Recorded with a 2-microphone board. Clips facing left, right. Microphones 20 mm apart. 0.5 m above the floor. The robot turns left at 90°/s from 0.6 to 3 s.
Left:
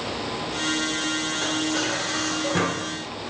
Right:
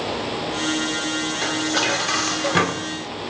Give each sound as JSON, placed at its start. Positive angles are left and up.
{"t": 1.4, "sound": "dishes clattering", "azimuth_deg": -25, "distance_m": 0.9}